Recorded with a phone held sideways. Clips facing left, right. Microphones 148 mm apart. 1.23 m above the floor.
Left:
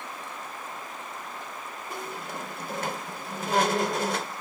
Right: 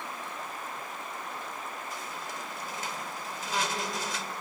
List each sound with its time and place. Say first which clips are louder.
1.9 s a squeak: left 4 dB; 60° left (ahead or behind), 1.6 m